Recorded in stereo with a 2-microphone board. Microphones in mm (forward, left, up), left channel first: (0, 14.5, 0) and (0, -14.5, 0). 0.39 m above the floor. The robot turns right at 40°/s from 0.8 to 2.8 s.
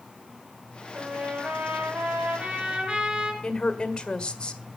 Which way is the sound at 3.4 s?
30° left (ahead or behind).